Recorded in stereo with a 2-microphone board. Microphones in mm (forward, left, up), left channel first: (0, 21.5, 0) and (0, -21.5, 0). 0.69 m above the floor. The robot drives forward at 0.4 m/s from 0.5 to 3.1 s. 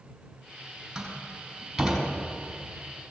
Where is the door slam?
10° right (ahead or behind), 3.5 m.